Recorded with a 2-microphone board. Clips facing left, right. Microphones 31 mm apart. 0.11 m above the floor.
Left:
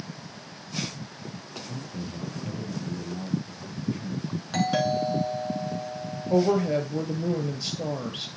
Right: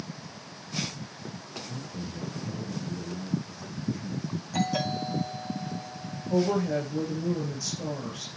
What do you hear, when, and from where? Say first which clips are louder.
1.6 s a man speaking: left 2 dB; 55° left (ahead or behind), 3 m
4.5 s a doorbell: left 5 dB; 70° left (ahead or behind), 5 m
6.3 s a woman speaking: left 3 dB; 55° left (ahead or behind), 2 m